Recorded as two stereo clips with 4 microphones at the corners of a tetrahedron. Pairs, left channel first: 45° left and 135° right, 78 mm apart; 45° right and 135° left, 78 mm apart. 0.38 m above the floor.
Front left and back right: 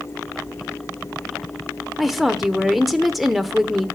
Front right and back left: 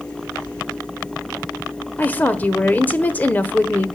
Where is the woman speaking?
50° right, 1.1 m.